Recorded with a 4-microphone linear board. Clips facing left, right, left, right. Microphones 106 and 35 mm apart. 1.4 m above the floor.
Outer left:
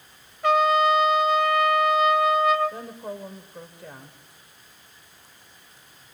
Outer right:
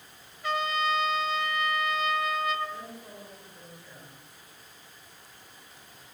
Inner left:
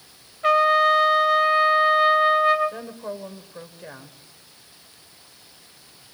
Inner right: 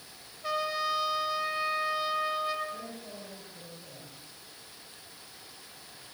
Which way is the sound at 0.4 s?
65° left (ahead or behind).